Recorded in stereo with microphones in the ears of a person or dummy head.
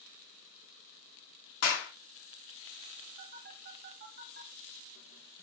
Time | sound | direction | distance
1.6 | a clap | 65° left (ahead or behind) | 2.0 m
3.2 | a phone buzzing | 40° right (ahead or behind) | 1.5 m